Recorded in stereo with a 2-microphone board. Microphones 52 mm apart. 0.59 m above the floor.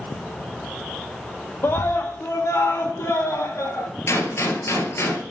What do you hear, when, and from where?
1.6 s a scream: 50° left (ahead or behind), 0.9 m; by 3.9 s 60° left (ahead or behind), 2.5 m
4.1 s a gunshot: 60° left (ahead or behind), 1.8 m